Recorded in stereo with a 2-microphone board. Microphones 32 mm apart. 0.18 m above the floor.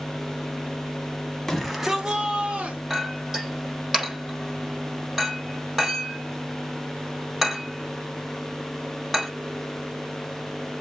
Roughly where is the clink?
Centre.